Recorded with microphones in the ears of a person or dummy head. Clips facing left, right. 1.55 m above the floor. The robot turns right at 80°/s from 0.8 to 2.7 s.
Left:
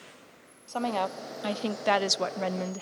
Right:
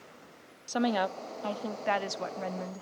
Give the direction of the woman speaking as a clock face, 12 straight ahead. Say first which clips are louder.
Right 1 dB; 1 o'clock.